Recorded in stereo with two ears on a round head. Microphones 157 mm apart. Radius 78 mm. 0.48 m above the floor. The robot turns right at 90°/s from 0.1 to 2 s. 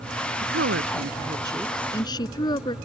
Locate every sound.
0.4 s a woman speaking: 120° right; by 2.8 s 25° left